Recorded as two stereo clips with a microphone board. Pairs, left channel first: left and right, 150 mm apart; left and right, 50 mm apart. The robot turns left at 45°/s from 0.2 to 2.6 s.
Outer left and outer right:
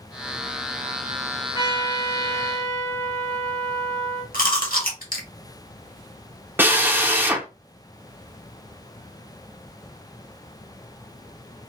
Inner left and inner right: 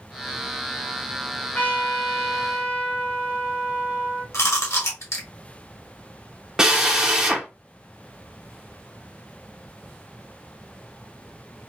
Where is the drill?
15° right (ahead or behind), 0.7 m.